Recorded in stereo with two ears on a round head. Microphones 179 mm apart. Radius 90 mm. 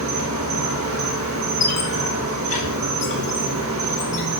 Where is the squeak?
35° left (ahead or behind), 3 m.